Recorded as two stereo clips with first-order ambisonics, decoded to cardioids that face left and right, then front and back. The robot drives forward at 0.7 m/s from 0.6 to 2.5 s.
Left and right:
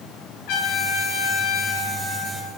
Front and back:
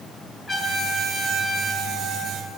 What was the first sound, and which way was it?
A trumpet, 80° left.